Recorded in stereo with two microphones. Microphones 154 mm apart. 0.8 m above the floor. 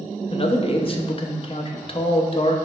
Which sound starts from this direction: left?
A man speaking, at 0.3 s.